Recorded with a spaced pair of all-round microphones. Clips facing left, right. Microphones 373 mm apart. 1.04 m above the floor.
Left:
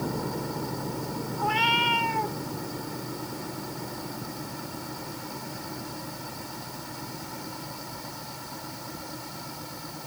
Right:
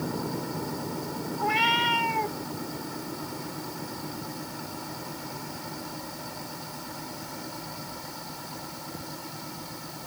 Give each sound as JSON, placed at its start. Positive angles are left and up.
{"t": 1.4, "sound": "a cat meowing", "side_deg": -35}